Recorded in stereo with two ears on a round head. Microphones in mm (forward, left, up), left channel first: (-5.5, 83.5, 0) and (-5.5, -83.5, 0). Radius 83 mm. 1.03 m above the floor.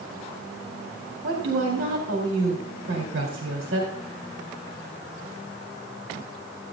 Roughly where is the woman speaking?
Right.